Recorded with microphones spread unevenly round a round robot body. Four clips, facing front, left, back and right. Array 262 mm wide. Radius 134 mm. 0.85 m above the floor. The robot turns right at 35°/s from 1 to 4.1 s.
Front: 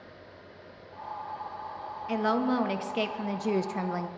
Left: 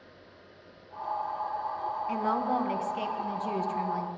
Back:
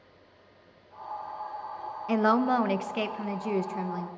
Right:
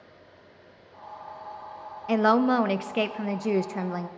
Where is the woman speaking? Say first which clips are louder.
Right 9 dB, back 3 dB; 110° right, 0.7 m; by 4.1 s 40° right, 0.7 m.